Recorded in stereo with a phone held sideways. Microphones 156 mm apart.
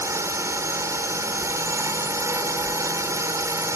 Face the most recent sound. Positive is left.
turn(degrees=-20)  # may be behind; listen again after turning